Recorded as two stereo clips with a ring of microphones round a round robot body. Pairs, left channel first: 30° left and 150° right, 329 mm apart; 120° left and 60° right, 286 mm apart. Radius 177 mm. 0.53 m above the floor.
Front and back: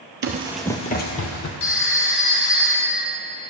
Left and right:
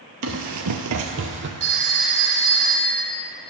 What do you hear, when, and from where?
0.2 s running footsteps: 100° right, 0.7 m; by 1.5 s 10° right, 1.3 m
1.6 s a phone ringing: 20° right, 2.5 m